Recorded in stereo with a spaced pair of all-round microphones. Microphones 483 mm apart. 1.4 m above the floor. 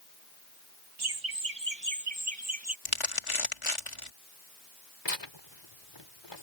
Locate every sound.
1.0 s laughter: 55° right (ahead or behind); by 2.8 s 30° right (ahead or behind)
2.9 s crumpling: 85° left
5.0 s tearing paper: 60° left (ahead or behind)